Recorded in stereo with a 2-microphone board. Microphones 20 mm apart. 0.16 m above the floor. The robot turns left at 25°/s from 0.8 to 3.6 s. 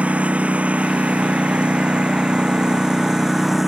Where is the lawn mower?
100° right; by 3.7 s 170° right.